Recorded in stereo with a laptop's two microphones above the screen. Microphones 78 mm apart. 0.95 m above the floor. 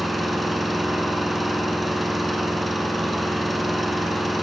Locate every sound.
0.0 s an engine running: centre (ahead or behind), 6.5 m